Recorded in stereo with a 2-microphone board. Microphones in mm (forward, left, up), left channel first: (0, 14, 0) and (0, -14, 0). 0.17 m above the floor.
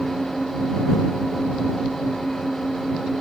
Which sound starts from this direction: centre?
An engine running, at 0.0 s.